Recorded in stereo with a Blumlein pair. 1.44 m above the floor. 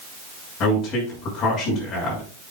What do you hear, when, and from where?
0.6 s a man speaking: 30° left, 6.5 m